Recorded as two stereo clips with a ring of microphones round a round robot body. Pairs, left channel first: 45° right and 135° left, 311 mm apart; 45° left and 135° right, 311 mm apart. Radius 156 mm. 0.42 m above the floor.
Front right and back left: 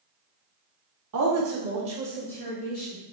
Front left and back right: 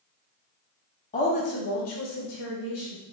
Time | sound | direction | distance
1.1 | a woman speaking | 110° left | 1.7 m